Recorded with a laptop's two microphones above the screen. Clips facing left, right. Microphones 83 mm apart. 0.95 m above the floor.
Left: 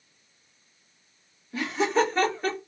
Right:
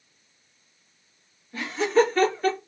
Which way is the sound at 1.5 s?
5° left (ahead or behind).